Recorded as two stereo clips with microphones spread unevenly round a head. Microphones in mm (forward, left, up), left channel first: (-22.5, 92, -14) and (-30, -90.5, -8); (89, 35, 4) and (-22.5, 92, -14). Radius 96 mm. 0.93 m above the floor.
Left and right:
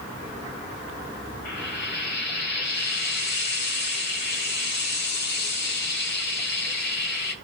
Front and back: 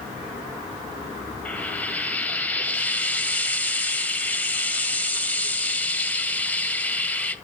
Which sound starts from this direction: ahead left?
Frying, at 1.4 s.